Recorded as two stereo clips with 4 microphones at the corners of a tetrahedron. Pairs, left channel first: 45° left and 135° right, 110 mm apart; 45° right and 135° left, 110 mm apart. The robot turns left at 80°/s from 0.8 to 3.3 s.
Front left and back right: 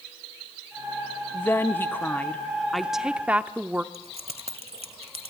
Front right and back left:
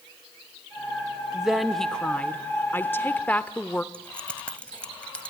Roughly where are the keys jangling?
Behind right.